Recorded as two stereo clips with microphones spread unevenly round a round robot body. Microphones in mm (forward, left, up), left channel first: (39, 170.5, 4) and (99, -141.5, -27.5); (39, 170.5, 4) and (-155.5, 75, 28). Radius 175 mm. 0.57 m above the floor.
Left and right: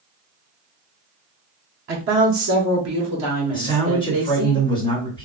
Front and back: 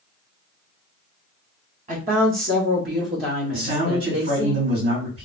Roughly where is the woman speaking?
Right.